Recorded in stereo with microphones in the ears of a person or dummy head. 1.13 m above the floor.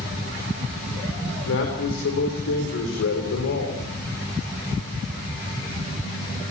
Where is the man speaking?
75° left (ahead or behind), 4.5 m.